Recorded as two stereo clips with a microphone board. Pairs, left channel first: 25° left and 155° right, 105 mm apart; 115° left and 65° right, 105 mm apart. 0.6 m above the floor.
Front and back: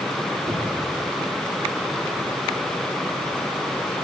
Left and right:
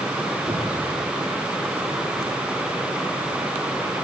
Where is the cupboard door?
70° right, 8 m.